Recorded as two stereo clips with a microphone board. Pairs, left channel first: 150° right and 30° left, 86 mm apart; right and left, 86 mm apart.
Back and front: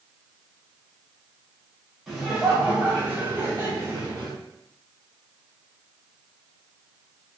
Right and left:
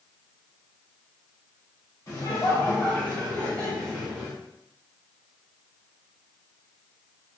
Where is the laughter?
60° right, 1.6 m; by 4.3 s 5° right, 1.9 m.